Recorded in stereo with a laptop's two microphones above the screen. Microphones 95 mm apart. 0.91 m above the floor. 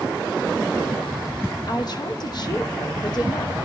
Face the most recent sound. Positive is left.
turn(degrees=50)  # may be behind; listen again after turning